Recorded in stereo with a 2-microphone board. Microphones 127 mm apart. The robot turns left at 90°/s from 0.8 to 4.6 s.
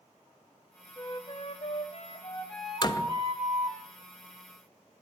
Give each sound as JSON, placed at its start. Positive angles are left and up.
{"t": 1.0, "sound": "a flute", "azimuth_deg": 155, "distance_m": 1.0}
{"t": 2.8, "sound": "a door slam", "azimuth_deg": 45, "distance_m": 0.8}